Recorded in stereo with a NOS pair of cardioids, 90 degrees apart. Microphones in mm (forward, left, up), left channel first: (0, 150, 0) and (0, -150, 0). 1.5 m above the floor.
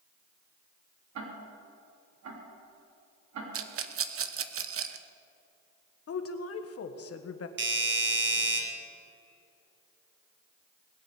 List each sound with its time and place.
1.1 s ticking: 60° right, 3.5 m
3.5 s a rattle: 45° right, 1.1 m
6.1 s a woman speaking: 50° left, 1.5 m
7.6 s a doorbell: 40° right, 3 m